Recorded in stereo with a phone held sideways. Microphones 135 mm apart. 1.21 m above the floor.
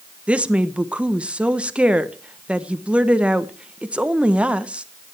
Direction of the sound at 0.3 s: 10° right (ahead or behind).